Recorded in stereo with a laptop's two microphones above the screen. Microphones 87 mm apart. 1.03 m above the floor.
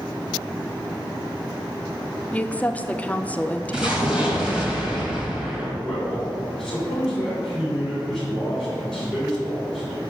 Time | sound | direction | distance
2.3 | a woman speaking | 15° left (ahead or behind) | 0.5 m
3.7 | an explosion | 10° right (ahead or behind) | 1.9 m
5.8 | a man speaking | 5° left (ahead or behind) | 3.5 m